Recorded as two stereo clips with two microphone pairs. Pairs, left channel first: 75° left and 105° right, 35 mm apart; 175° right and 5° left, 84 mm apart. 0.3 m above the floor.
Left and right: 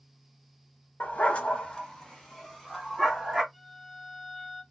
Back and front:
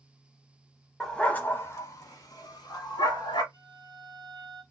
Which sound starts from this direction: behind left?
A violin, at 3.5 s.